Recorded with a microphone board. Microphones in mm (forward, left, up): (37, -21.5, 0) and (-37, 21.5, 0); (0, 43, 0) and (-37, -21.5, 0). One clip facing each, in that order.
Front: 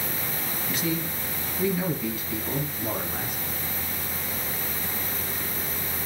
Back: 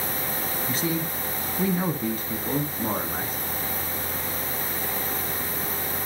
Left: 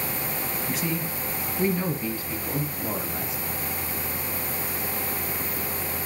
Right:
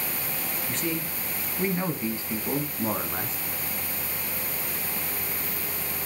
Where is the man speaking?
135° left, 1.4 m; by 3.4 s 160° right, 2.5 m.